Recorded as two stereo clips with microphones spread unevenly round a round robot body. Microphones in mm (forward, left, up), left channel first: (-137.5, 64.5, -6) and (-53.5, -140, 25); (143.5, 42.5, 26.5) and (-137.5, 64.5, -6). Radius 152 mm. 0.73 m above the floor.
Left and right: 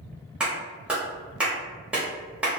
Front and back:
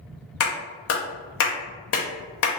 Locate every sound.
0.4 s a clap: 25° left, 0.8 m